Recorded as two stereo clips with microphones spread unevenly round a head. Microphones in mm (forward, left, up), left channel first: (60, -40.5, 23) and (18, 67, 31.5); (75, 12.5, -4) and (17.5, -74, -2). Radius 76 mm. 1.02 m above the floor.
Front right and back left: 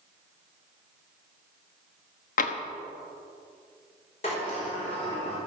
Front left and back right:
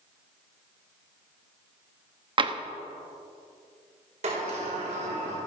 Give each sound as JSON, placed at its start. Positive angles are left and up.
{"t": 2.4, "sound": "tapping", "azimuth_deg": -80, "distance_m": 1.2}
{"t": 4.2, "sound": "a sliding door", "azimuth_deg": -115, "distance_m": 5.0}